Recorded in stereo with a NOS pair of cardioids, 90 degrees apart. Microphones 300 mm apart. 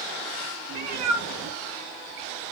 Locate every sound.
0.7 s a cat meowing: 70° right, 1.4 m; by 2.5 s 20° right, 0.8 m